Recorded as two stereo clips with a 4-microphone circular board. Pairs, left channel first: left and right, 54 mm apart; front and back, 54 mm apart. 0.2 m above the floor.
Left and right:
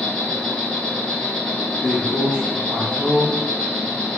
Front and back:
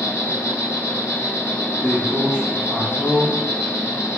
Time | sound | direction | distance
0.0 | an insect | 15° left | 1.0 m
1.8 | a man speaking | 40° right | 1.1 m